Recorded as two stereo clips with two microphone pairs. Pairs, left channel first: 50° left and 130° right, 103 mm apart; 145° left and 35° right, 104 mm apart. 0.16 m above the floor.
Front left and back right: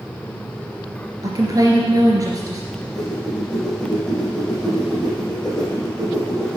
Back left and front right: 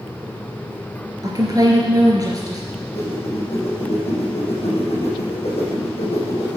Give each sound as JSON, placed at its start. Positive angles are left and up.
{"t": 1.2, "sound": "a woman speaking", "azimuth_deg": -80, "distance_m": 3.0}
{"t": 2.7, "sound": "a whoosh", "azimuth_deg": 135, "distance_m": 5.0}